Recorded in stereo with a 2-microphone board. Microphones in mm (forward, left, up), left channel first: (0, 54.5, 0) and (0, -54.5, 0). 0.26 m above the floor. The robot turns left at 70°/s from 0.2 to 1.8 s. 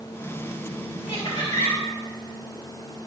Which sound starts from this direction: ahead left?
Laughter, at 1.1 s.